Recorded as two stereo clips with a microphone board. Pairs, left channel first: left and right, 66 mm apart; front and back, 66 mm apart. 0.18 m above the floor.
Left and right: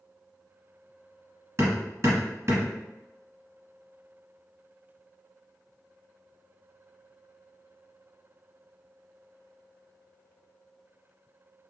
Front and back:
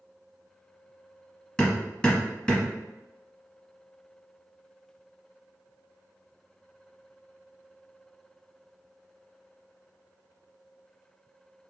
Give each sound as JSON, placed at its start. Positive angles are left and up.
{"t": 1.6, "sound": "hammering", "azimuth_deg": -75, "distance_m": 1.4}